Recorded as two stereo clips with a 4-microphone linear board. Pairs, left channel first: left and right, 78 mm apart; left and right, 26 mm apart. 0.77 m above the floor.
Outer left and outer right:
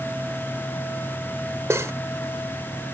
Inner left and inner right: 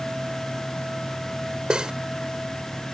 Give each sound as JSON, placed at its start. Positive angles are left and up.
{"t": 1.7, "sound": "cutlery clinking", "side_deg": -35}